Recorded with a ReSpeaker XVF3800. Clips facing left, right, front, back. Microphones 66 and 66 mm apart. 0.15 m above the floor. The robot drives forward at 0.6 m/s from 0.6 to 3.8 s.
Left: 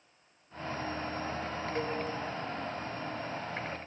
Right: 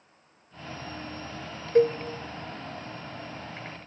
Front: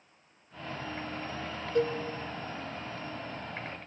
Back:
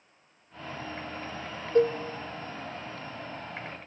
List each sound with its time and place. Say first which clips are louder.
1.8 s a cowbell: right 15 dB, back 5 dB; 125° right, 0.7 m; by 2.0 s 130° right, 0.8 m